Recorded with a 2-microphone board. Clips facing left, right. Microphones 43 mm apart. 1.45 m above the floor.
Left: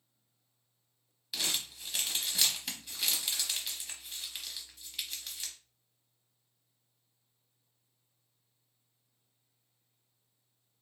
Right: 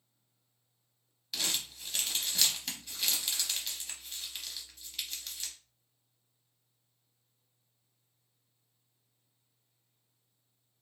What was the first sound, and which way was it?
Crumpling, 5° left (ahead or behind).